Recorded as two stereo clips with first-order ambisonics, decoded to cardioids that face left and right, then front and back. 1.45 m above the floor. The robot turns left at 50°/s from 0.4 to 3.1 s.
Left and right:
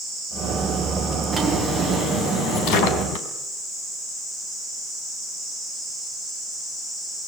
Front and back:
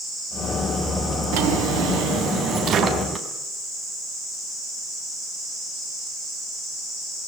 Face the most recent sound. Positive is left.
turn(degrees=100)